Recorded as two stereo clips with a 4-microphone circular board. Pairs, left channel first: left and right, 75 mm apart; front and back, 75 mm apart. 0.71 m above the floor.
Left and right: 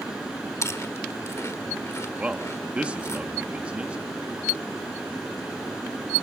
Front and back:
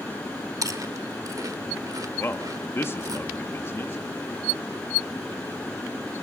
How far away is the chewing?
About 1.3 m.